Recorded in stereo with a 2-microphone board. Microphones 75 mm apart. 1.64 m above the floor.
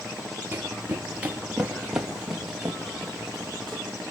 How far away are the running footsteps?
About 2 m.